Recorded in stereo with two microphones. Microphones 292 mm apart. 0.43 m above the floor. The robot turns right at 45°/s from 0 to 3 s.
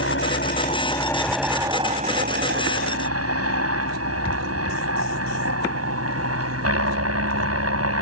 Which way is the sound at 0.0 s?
120° left.